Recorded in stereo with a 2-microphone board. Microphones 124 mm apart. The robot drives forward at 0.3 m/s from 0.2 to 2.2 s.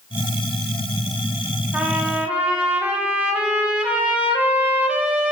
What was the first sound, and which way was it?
A trumpet, 15° right (ahead or behind).